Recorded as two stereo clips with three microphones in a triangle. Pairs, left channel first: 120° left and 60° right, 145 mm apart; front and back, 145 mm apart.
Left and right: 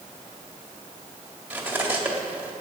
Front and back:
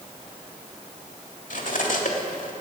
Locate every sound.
1.5 s cutlery clinking: 20° left, 1.7 m